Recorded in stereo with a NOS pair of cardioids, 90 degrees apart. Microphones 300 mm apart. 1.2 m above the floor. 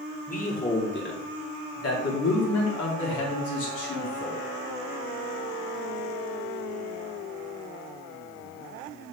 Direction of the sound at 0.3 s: 25° left.